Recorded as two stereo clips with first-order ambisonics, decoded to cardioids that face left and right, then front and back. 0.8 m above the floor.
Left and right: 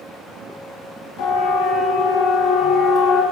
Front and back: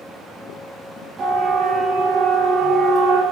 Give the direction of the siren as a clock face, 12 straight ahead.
8 o'clock.